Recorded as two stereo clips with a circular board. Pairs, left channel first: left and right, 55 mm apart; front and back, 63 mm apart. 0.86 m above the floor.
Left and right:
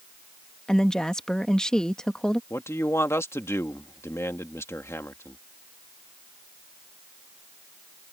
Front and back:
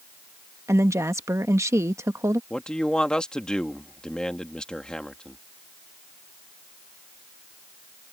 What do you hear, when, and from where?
0.7 s a woman speaking: 160° left
2.5 s a man speaking: 75° left